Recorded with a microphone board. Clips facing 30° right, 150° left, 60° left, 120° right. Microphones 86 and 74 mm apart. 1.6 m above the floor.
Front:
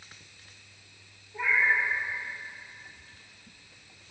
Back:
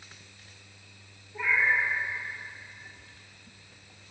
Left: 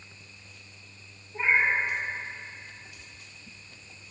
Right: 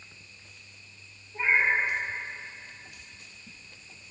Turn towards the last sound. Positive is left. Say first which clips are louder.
# even, even
turn(degrees=5)